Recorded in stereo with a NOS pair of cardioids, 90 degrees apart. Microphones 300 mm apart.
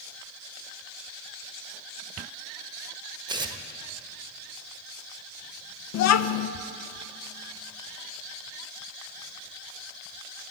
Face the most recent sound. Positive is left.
turn(degrees=60)